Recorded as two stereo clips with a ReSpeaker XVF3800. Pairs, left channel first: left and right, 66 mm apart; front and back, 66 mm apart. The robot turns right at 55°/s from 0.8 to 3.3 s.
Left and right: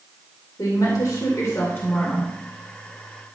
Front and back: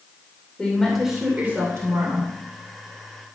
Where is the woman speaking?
85° left, 2.5 m; by 2.3 s 165° left, 2.5 m.